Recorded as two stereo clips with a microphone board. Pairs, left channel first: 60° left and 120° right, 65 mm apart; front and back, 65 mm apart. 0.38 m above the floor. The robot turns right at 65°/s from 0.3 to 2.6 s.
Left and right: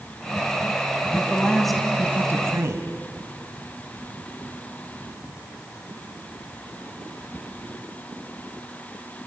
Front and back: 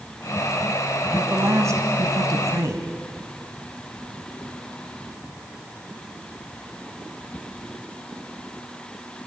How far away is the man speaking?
About 2.5 m.